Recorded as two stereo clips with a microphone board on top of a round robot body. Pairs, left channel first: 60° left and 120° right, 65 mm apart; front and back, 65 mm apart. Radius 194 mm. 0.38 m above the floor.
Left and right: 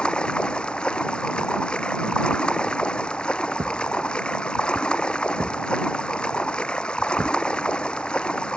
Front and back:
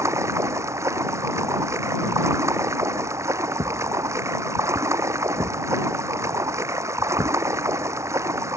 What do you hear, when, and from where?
0.0 s running water: 135° left
3.6 s a thud: 150° right